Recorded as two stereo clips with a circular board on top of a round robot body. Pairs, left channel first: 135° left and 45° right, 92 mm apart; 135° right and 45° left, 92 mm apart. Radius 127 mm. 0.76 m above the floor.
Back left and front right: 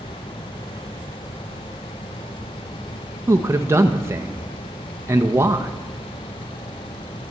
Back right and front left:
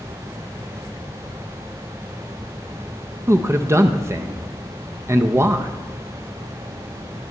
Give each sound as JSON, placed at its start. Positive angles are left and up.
{"t": 3.3, "sound": "a man speaking", "azimuth_deg": 0, "distance_m": 0.7}